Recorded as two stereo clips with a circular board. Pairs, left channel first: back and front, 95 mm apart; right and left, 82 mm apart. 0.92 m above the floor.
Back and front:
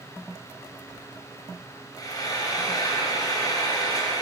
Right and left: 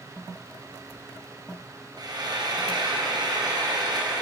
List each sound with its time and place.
2.0 s frying: 125° left, 4.5 m